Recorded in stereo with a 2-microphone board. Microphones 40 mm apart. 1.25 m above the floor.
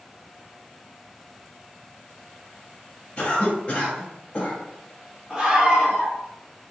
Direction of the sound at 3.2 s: 30° left (ahead or behind).